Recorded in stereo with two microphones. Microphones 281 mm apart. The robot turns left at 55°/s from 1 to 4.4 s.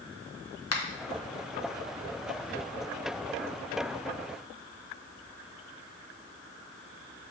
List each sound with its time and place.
0.7 s a finger snap: 60° left (ahead or behind), 0.9 m